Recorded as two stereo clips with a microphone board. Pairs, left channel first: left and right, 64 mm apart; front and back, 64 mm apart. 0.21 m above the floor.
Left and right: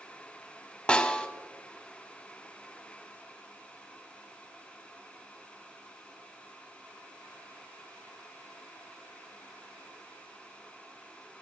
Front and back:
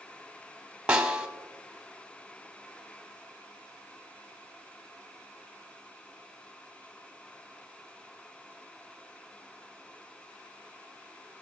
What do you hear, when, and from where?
0.9 s a snare drum: 135° left, 1.3 m